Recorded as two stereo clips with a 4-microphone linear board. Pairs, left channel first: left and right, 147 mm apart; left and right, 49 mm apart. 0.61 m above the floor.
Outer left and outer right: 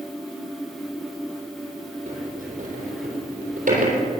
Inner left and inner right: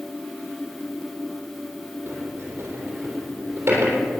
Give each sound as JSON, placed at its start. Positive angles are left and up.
{"t": 2.1, "sound": "a sliding door", "side_deg": -60, "distance_m": 3.5}